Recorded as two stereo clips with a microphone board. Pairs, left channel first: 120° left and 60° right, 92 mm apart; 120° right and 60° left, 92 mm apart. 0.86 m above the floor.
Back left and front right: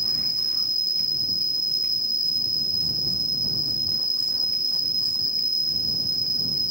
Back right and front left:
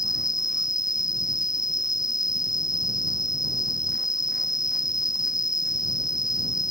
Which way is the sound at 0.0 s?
25° right.